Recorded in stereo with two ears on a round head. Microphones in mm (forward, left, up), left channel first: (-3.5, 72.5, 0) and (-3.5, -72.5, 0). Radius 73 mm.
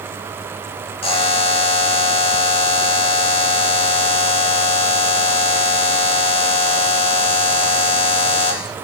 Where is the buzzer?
35° left (ahead or behind), 0.8 m.